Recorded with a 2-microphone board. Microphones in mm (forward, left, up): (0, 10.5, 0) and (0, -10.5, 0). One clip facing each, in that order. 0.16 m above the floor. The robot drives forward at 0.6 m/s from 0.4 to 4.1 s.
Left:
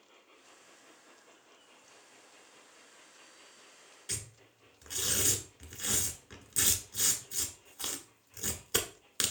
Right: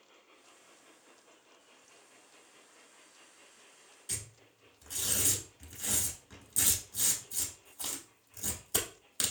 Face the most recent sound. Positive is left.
turn(degrees=30)  # may be behind; listen again after turning